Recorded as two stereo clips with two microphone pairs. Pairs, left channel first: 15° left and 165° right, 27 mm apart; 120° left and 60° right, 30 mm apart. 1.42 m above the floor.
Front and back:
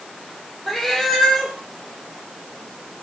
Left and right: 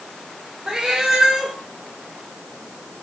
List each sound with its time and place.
0.7 s a cat meowing: 55° right, 1.0 m